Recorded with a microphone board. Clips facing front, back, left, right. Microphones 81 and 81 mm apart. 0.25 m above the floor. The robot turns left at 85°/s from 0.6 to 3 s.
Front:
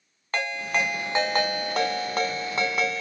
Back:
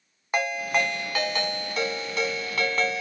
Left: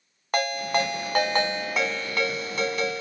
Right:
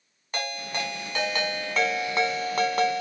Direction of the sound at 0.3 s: 105° left.